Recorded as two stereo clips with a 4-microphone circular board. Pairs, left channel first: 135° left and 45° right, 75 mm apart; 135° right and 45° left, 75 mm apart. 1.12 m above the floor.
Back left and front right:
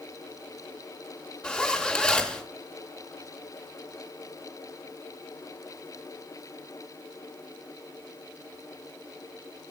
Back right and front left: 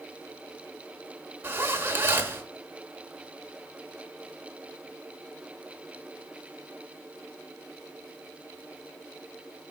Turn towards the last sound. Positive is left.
turn(degrees=70)